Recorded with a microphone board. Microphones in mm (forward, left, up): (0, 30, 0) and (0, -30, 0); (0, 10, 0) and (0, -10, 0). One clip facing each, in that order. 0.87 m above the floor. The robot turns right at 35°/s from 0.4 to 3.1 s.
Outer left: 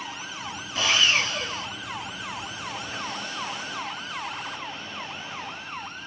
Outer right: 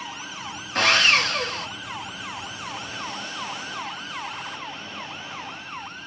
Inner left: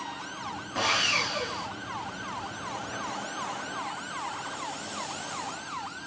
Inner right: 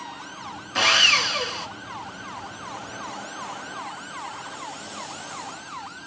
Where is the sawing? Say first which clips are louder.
Outer right 4 dB, inner right 8 dB; 115° right, 1.6 m; by 1.7 s 80° right, 1.6 m.